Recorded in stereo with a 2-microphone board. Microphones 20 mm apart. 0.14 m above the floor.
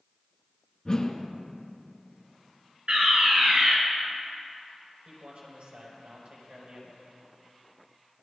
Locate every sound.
0.8 s a whoosh: 35° left (ahead or behind), 1.9 m
2.9 s a fire alarm: 55° right (ahead or behind), 4.5 m
5.0 s a man speaking: 70° right (ahead or behind), 6.5 m